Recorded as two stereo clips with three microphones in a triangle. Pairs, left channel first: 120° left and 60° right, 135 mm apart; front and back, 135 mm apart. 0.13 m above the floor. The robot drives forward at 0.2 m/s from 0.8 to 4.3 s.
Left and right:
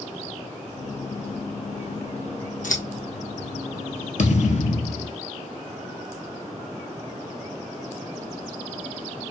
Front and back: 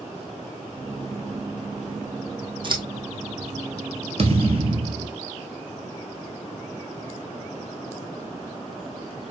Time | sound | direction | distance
2.6 | scissors | 130° left | 1.8 m
4.2 | a thud | 140° left | 1.3 m